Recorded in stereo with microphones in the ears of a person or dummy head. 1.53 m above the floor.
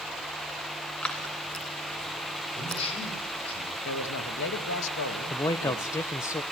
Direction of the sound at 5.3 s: 15° left (ahead or behind).